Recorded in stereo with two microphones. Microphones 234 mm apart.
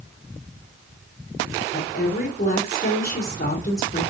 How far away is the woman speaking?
About 3.5 m.